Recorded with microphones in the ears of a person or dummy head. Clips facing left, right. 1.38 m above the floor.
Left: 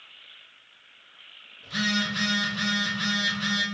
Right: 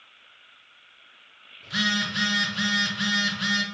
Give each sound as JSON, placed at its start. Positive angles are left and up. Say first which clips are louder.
{"t": 1.6, "sound": "a phone buzzing", "louder": "left 1 dB", "side_deg": -5, "distance_m": 0.6}